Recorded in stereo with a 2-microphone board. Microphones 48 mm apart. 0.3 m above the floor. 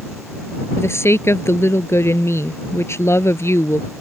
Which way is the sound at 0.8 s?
70° left (ahead or behind).